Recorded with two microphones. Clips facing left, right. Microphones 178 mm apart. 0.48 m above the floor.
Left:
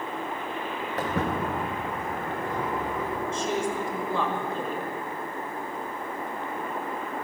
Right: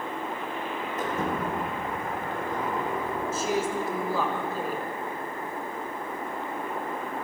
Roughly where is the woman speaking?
Centre.